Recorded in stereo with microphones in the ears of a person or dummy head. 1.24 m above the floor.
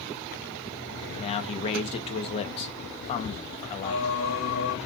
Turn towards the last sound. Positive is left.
turn(degrees=60)  # may be behind; listen again after turning